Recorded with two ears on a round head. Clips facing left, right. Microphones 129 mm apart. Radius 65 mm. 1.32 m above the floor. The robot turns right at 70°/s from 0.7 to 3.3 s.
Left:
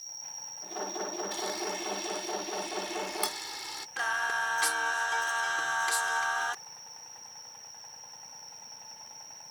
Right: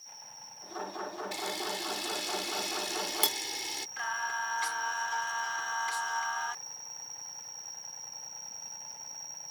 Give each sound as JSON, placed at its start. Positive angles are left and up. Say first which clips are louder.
{"t": 0.0, "sound": "an insect", "louder": "even", "azimuth_deg": 35}
{"t": 1.3, "sound": "a camera shutter", "louder": "left 2 dB", "side_deg": -15}
{"t": 4.0, "sound": "singing", "louder": "left 3 dB", "side_deg": 60}